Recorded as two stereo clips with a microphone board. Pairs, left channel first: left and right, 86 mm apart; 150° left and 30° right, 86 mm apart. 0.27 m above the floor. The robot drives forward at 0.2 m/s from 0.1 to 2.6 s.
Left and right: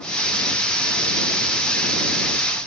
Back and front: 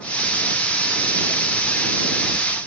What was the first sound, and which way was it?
Only background noise.